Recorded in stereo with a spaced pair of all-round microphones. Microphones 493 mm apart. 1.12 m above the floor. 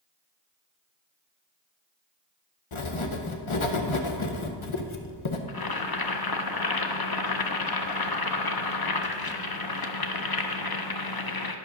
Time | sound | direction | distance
2.7 | writing | 75° left (ahead or behind) | 0.8 m
5.5 | boiling | 50° left (ahead or behind) | 0.6 m